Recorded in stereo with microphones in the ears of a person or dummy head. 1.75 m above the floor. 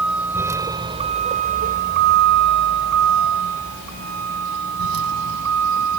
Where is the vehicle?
Centre (ahead or behind); by 6.0 s 85° right.